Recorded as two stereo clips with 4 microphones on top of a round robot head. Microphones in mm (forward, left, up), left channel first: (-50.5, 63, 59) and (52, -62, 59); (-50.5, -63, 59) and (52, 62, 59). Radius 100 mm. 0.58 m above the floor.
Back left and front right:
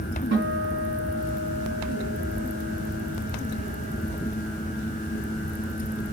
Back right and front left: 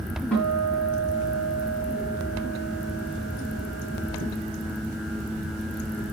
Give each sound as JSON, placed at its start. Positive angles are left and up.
{"t": 0.3, "sound": "a guitar", "azimuth_deg": -50, "distance_m": 5.0}